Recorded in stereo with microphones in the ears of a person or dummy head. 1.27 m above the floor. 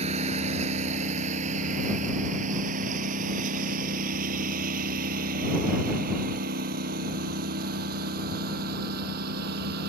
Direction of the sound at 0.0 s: 35° right (ahead or behind).